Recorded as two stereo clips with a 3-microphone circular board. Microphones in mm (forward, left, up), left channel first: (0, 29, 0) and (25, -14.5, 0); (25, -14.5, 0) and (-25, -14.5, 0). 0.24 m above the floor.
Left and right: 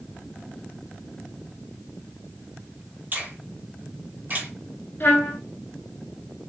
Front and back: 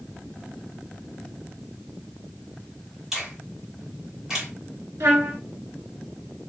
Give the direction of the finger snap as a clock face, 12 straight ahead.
3 o'clock.